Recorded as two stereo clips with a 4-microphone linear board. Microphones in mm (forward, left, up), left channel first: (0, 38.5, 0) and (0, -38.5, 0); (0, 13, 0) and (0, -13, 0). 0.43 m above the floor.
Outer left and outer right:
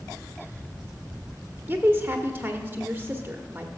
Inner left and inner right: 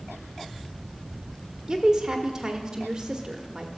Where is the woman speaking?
30° right (ahead or behind), 1.0 m.